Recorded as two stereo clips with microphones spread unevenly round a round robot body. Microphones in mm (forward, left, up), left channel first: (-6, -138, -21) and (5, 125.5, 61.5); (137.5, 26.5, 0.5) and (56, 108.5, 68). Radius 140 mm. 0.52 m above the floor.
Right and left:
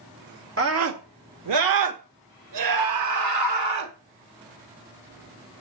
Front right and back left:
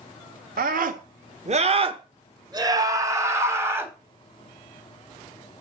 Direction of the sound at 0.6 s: 135° left.